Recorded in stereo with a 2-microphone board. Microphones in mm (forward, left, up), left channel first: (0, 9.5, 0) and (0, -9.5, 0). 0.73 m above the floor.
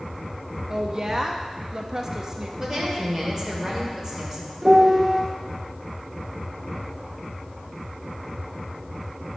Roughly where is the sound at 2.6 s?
Right.